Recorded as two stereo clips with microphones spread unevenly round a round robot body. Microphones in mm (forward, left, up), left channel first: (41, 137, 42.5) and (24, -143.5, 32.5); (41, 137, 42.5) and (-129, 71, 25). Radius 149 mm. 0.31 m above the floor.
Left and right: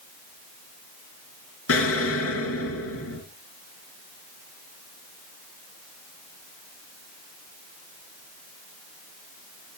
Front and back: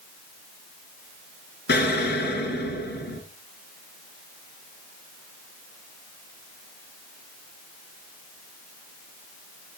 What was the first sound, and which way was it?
An explosion, 45° left.